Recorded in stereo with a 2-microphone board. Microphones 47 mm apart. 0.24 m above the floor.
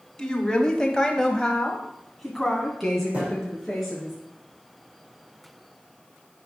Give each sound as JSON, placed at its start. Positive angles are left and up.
{"t": 0.2, "sound": "a woman speaking", "side_deg": 10, "distance_m": 1.6}
{"t": 3.1, "sound": "a thud", "side_deg": -30, "distance_m": 6.0}